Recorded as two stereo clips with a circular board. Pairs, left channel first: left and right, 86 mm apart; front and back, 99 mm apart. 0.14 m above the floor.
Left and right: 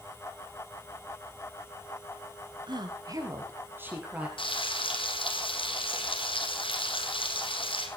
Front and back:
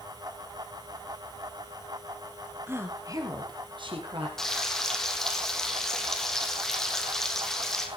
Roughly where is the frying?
Left.